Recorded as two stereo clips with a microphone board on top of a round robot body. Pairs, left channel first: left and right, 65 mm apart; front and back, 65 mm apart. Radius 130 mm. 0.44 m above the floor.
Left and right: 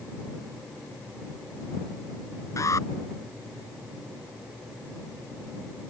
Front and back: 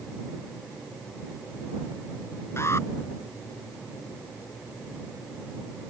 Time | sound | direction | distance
2.6 | an alarm | 50° left | ?